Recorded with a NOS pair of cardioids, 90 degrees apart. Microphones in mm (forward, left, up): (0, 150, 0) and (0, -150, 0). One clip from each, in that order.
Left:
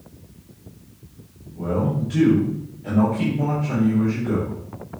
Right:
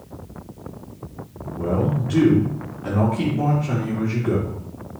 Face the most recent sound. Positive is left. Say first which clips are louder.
# right 1 dB
turn(degrees=-70)